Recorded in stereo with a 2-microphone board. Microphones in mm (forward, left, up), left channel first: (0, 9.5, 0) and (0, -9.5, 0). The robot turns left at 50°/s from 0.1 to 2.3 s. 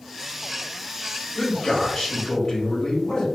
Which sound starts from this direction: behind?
A man speaking, at 1.4 s.